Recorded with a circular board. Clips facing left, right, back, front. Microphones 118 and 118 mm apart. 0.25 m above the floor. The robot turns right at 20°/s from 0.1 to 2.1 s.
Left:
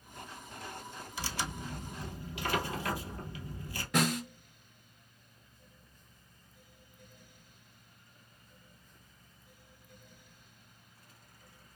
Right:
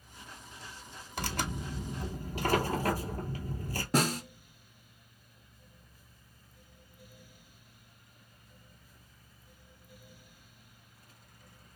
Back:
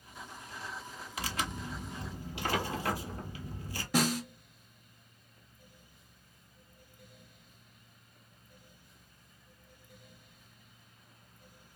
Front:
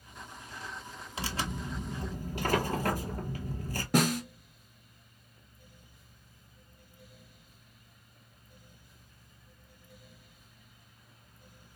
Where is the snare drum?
35° right, 0.8 m.